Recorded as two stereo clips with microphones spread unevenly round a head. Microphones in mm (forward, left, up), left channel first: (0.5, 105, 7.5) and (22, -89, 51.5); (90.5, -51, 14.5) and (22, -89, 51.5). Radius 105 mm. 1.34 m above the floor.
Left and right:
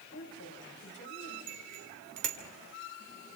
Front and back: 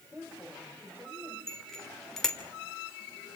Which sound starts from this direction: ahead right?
A bicycle bell, at 1.5 s.